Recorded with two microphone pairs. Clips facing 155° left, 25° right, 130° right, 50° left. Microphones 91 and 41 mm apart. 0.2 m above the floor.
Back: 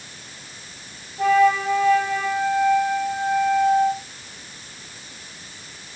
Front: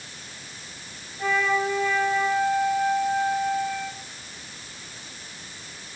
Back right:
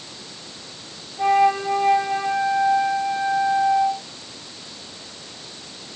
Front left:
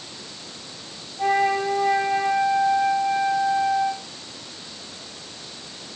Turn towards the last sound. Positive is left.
turn(degrees=175)